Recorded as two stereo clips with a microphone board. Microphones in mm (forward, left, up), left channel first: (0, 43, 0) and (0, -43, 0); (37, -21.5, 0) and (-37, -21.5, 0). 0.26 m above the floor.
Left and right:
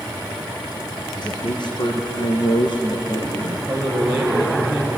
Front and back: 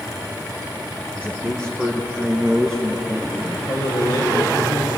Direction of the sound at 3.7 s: 20° right.